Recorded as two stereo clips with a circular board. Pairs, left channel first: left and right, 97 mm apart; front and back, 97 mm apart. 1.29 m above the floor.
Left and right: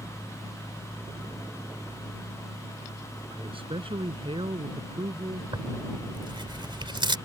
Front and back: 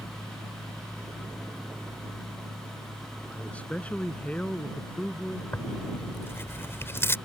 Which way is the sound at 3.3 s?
75° right.